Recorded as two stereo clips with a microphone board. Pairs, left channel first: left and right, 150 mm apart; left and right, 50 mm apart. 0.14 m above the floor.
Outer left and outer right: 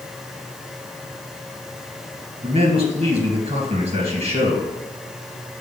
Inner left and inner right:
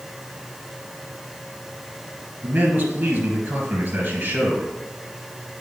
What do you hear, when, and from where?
2.4 s a man speaking: 40° right (ahead or behind), 2.5 m